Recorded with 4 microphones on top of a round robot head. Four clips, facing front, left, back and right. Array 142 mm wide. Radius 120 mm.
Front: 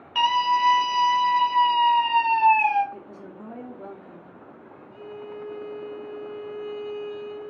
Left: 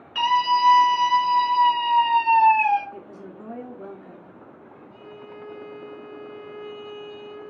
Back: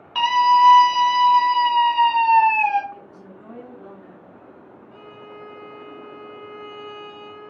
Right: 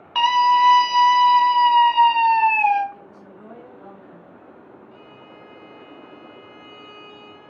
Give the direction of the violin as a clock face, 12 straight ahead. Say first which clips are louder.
Left 3 dB, front 5 dB; 5 o'clock.